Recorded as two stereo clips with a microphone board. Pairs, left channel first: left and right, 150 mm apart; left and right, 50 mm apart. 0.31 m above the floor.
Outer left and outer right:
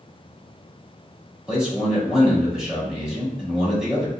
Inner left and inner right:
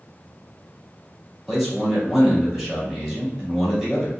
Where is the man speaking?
5° right (ahead or behind), 1.5 m.